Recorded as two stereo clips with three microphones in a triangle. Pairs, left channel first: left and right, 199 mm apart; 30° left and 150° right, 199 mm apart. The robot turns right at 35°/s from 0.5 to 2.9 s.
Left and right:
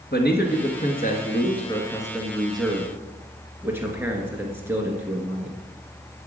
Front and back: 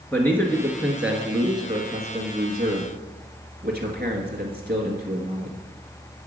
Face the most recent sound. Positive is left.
turn(degrees=-165)